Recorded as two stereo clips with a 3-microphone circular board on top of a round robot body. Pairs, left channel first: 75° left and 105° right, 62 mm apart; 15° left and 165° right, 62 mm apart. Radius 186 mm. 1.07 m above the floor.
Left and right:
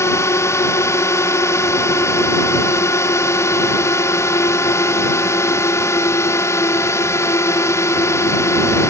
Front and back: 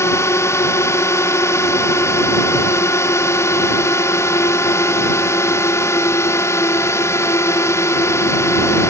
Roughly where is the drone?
Ahead left.